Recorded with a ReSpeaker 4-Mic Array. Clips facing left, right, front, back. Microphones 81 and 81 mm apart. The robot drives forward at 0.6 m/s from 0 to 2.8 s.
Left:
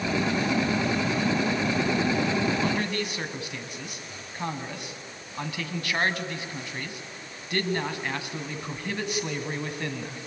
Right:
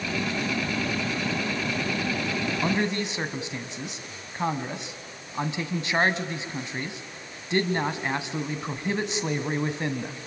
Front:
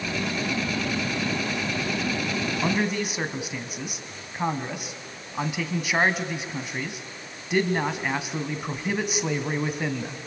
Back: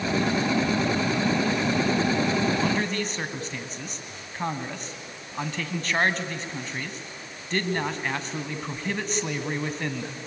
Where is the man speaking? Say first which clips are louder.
Right 2 dB, front 1 dB; 55° right, 1.4 m; by 10.2 s 65° right, 1.4 m.